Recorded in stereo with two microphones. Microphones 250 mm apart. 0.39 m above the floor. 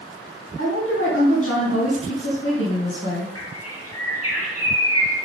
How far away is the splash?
I don't hear a splash.